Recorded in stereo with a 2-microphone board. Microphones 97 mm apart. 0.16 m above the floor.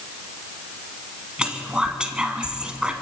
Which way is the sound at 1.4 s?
10° right (ahead or behind).